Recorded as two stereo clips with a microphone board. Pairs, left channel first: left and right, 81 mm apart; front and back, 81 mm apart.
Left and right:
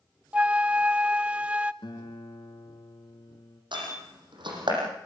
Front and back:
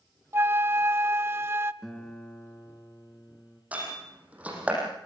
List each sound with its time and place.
0.3 s a flute: 150° right, 0.6 m
1.8 s a guitar: 85° left, 2.5 m
3.7 s a door slam: 105° right, 7.5 m